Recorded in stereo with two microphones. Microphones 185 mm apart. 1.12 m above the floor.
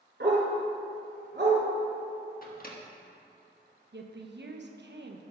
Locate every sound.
0.2 s a dog barking: 70° right (ahead or behind), 3 m
2.4 s a microwave: 50° left (ahead or behind), 1.3 m
3.9 s a woman speaking: 70° right (ahead or behind), 1.0 m